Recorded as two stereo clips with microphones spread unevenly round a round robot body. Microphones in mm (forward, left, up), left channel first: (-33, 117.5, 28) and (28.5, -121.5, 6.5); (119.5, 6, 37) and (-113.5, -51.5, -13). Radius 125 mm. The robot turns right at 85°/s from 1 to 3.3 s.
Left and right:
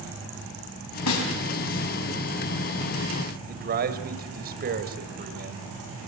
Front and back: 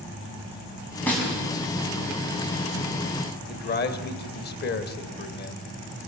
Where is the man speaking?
35° right, 1.9 m.